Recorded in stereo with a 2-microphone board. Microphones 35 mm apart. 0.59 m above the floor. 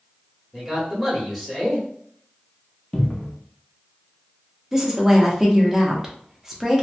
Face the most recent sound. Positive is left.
turn(degrees=-10)  # may be behind; listen again after turning